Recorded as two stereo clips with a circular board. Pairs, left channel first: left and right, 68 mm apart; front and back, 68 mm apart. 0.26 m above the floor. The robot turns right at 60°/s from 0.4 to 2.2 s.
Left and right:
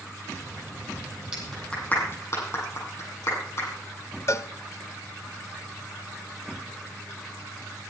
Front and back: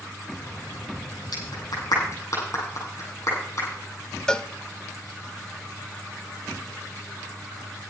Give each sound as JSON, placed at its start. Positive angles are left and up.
{"t": 1.3, "sound": "a clap", "azimuth_deg": -10, "distance_m": 8.5}
{"t": 4.3, "sound": "a cowbell", "azimuth_deg": 75, "distance_m": 0.6}